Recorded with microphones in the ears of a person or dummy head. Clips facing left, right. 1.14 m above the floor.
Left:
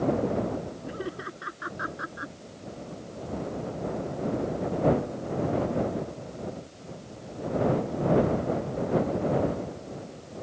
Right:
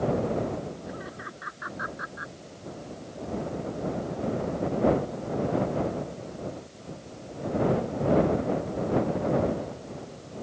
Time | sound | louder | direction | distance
0.9 | laughter | left 4 dB | 40° left (ahead or behind) | ?